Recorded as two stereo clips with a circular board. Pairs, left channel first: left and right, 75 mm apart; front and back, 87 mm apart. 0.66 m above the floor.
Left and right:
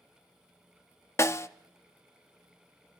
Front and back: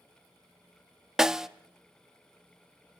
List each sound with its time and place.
1.2 s a snare drum: 100° left, 0.6 m